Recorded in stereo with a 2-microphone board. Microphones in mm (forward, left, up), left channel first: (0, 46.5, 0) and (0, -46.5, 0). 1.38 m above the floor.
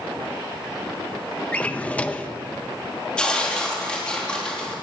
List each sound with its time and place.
1.5 s a drawer: 15° left (ahead or behind), 0.7 m
3.2 s tearing paper: 10° left (ahead or behind), 3 m